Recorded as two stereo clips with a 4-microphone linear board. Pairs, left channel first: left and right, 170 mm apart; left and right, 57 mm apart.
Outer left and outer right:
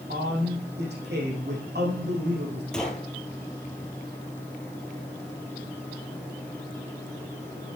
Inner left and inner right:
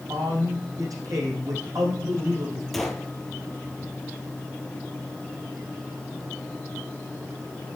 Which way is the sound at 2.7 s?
5° left (ahead or behind).